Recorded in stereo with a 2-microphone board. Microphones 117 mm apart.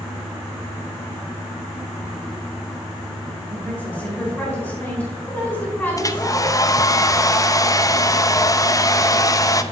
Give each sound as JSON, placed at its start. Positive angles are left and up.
{"t": 3.5, "sound": "a woman speaking", "side_deg": 15, "distance_m": 4.5}
{"t": 6.0, "sound": "a hair dryer", "side_deg": 30, "distance_m": 0.5}